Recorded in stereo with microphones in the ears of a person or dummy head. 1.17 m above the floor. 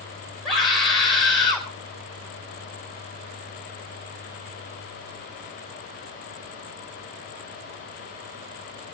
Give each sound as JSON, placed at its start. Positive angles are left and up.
{"t": 0.5, "sound": "a scream", "side_deg": 0, "distance_m": 5.0}